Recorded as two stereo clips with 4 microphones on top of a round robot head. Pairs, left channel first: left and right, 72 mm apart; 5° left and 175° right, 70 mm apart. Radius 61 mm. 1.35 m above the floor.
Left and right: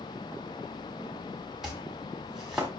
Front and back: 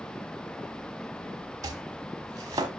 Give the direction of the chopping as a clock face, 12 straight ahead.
6 o'clock.